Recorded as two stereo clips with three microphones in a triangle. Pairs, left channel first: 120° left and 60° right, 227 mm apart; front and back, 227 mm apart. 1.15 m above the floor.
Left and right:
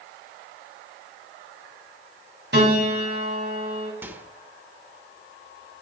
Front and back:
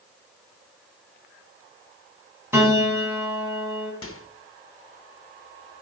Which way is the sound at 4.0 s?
20° left.